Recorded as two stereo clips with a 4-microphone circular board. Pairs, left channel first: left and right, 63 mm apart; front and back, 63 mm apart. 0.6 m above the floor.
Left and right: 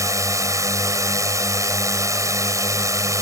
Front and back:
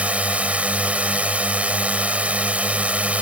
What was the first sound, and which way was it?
A drone, 115° right.